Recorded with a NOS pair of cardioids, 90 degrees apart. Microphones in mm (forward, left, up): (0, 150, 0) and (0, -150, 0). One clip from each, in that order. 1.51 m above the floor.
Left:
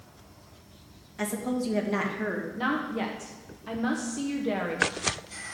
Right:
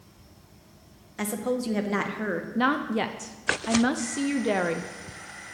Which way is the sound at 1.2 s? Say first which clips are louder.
Right 2 dB; 25° right.